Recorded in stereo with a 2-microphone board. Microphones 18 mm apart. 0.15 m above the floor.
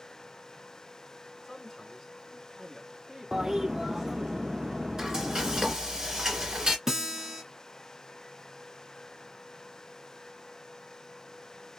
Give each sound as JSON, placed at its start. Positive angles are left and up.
{"t": 1.4, "sound": "a man speaking", "side_deg": 25, "distance_m": 1.6}
{"t": 3.3, "sound": "a toilet flushing", "side_deg": -30, "distance_m": 0.5}
{"t": 5.0, "sound": "frying", "side_deg": -35, "distance_m": 2.0}
{"t": 6.9, "sound": "a guitar", "side_deg": -20, "distance_m": 1.4}